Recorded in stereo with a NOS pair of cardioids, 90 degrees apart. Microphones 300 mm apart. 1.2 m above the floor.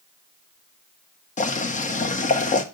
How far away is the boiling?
About 1.4 m.